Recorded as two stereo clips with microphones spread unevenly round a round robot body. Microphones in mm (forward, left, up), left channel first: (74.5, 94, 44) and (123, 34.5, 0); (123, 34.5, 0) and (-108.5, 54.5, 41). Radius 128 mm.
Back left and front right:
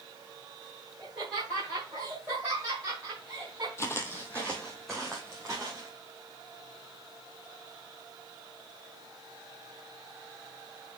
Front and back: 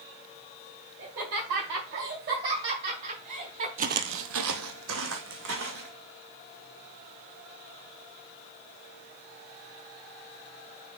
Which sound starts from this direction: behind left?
Footsteps, at 3.8 s.